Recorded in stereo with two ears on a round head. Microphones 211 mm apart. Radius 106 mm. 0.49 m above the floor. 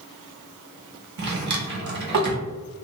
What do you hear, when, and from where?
1.2 s a drawer: 45° right (ahead or behind), 0.7 m